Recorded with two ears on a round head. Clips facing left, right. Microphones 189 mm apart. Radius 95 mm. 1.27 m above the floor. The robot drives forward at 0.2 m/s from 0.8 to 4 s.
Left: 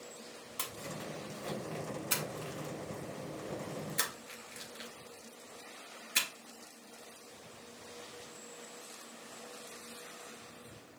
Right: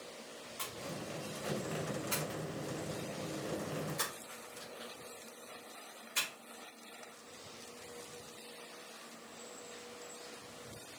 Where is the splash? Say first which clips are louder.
Even; 70° left (ahead or behind), 1.9 m; by 6.3 s 85° left, 1.8 m.